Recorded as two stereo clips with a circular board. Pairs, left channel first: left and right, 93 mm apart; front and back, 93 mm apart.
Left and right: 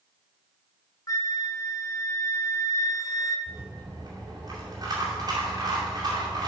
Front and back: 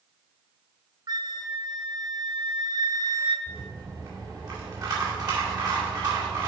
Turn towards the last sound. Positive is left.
turn(degrees=-135)